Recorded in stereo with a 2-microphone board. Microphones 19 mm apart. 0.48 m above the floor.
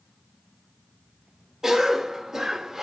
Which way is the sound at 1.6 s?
25° right (ahead or behind).